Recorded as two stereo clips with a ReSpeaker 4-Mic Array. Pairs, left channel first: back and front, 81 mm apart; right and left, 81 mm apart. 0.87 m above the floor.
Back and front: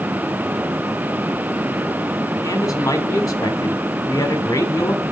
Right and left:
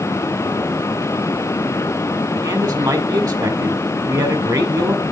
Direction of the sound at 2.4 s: 130° left.